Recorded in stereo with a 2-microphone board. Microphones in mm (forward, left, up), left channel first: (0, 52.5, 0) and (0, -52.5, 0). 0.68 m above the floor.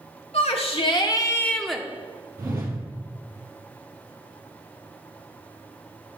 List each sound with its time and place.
0.3 s a shout: 65° left (ahead or behind), 2.0 m; by 1.8 s 5° right (ahead or behind), 1.5 m
2.4 s a whoosh: 20° right (ahead or behind), 4 m